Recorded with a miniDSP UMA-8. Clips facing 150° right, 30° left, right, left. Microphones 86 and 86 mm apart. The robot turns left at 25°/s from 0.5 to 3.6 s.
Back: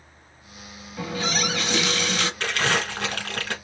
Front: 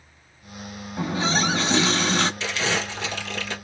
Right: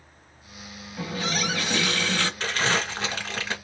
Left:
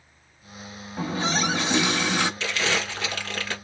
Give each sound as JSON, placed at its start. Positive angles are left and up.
{"t": 1.0, "sound": "a running tap", "azimuth_deg": 65, "distance_m": 0.7}
{"t": 2.4, "sound": "crumpling", "azimuth_deg": -125, "distance_m": 1.8}